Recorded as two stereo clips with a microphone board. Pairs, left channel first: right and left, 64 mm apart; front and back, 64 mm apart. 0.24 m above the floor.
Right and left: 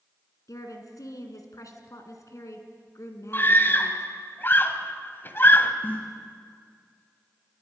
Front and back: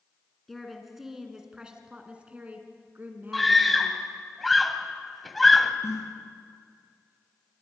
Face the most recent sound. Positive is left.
turn(degrees=-30)